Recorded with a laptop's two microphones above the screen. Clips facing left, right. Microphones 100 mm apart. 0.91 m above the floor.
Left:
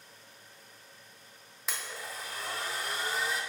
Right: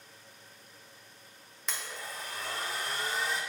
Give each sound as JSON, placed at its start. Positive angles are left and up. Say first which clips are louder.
{"t": 1.7, "sound": "a blender", "louder": "even", "side_deg": 0, "distance_m": 0.6}